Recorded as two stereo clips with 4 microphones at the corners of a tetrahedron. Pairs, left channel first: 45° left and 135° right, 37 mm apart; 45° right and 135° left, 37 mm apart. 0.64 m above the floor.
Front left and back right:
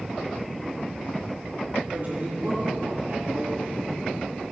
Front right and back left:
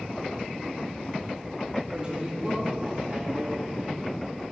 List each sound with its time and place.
1.9 s a woman speaking: 165° right, 2 m